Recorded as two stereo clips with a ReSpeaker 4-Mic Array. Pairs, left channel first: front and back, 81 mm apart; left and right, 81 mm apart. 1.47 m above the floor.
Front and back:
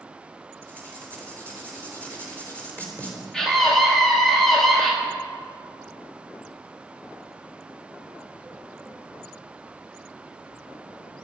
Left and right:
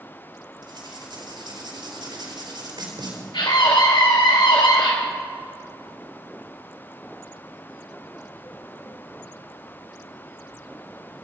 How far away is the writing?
About 4 m.